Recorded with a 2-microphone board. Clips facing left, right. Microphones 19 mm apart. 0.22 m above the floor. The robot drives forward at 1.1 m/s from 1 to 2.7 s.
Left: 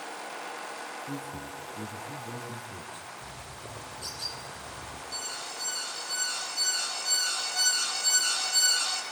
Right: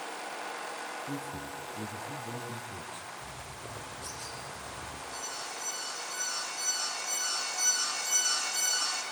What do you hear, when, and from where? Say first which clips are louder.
1.1 s a man speaking: even; 5° right (ahead or behind), 2.5 m
3.2 s a bird: even; 75° left (ahead or behind), 6 m
5.1 s an alarm: left 3 dB; 80° left, 7 m